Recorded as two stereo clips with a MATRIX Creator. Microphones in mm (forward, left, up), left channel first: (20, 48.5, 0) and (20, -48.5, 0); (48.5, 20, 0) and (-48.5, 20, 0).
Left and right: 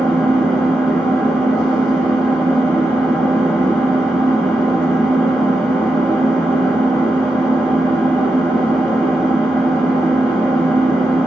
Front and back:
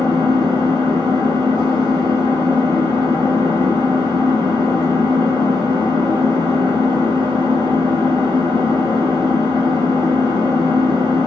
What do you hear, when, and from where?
0.0 s an engine running: 170° left, 1.4 m